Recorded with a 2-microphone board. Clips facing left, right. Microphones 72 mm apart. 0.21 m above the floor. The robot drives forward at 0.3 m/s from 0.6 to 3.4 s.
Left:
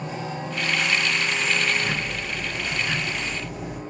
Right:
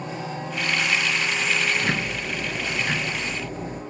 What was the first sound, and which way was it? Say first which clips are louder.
Ticking: right 2 dB; 65° right (ahead or behind).